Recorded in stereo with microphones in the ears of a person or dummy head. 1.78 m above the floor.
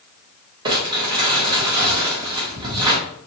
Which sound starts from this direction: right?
Crumpling, at 0.7 s.